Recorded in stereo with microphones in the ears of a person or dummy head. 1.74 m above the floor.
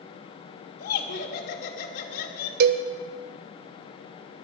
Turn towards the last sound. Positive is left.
turn(degrees=-55)  # may be behind; listen again after turning